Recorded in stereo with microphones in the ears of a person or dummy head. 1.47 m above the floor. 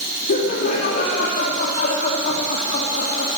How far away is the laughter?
About 3.5 m.